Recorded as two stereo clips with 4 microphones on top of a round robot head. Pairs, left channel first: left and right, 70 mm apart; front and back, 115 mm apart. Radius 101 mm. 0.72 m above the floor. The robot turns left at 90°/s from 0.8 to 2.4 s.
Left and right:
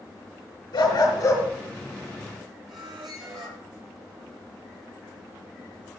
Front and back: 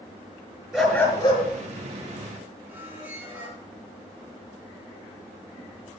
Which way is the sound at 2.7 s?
105° right.